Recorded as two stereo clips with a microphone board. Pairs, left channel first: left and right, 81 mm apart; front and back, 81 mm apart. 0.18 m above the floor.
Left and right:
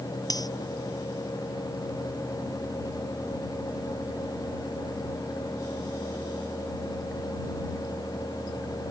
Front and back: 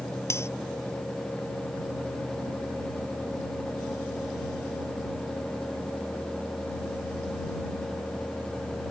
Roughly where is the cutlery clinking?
Ahead left.